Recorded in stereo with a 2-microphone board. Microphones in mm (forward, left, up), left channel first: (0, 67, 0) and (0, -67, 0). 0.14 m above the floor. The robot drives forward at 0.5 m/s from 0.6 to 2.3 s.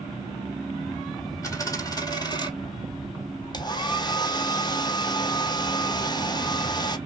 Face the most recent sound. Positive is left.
turn(degrees=35)  # may be behind; listen again after turning